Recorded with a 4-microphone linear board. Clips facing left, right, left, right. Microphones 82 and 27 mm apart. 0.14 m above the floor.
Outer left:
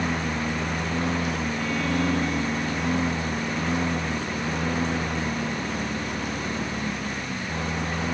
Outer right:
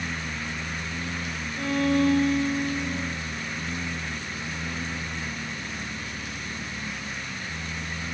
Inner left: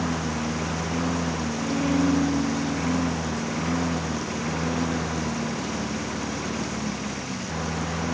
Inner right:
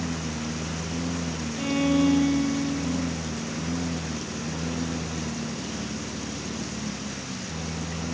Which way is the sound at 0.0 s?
70° left (ahead or behind).